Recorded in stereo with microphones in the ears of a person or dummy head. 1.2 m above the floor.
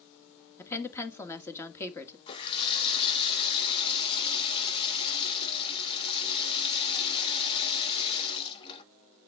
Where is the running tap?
30° left (ahead or behind), 1.2 m.